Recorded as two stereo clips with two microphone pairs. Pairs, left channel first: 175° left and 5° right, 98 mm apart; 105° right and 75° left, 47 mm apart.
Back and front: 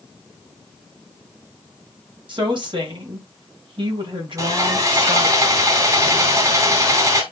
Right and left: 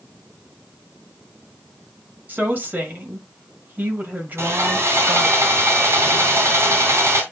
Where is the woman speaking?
25° left, 2.5 m.